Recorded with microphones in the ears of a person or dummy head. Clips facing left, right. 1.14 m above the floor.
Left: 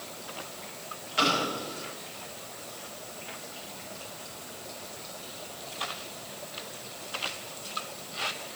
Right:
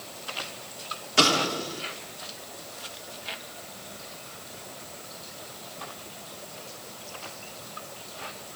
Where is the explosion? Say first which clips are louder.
Right 4 dB; 60° right (ahead or behind), 1.4 m.